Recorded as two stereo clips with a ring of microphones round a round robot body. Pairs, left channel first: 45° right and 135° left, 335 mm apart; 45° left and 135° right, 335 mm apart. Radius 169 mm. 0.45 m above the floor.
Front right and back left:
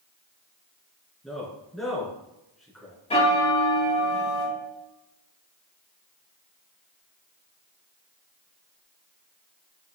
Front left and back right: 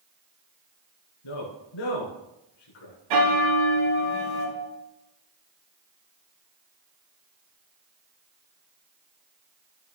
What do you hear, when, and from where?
1.2 s a man speaking: 45° left, 4.5 m
3.1 s a bell: 120° right, 4 m